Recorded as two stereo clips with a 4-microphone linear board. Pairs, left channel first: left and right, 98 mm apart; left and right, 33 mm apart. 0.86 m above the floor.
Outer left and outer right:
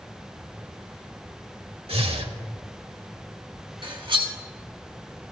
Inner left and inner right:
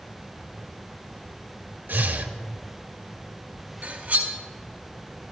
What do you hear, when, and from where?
1.9 s breathing: 80° right, 1.0 m
3.8 s cutlery clinking: 60° right (ahead or behind), 1.8 m